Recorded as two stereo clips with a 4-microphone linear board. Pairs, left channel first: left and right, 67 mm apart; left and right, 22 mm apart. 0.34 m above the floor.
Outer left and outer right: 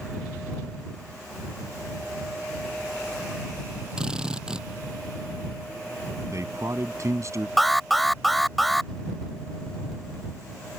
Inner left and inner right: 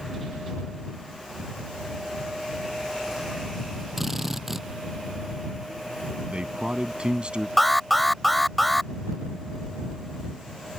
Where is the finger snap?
I don't hear a finger snap.